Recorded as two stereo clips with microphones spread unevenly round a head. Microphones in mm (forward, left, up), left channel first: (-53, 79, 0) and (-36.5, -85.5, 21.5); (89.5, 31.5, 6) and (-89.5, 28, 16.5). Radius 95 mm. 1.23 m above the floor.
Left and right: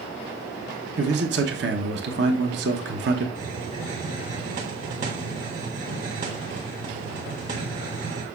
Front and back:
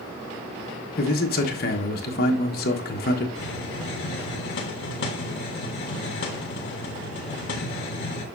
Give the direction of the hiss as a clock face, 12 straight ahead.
1 o'clock.